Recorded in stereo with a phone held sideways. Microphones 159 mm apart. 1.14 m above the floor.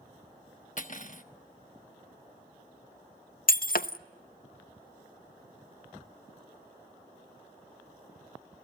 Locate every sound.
0.8 s cutlery clinking: 55° left (ahead or behind), 1.1 m
3.5 s breaking glass: 65° left (ahead or behind), 0.6 m